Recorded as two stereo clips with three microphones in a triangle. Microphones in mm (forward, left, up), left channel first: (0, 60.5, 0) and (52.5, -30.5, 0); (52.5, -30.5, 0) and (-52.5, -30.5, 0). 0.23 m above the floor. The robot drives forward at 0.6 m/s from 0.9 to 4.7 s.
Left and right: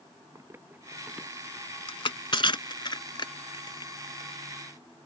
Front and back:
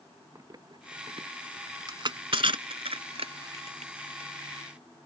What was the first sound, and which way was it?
Running footsteps, 120° right.